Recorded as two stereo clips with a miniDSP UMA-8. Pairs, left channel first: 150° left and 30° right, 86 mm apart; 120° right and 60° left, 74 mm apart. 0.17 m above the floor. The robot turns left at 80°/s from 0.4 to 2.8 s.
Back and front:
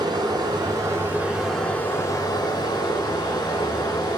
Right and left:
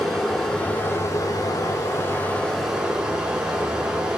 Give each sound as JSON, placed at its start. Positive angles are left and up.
{"t": 0.0, "sound": "running water", "azimuth_deg": -35, "distance_m": 0.8}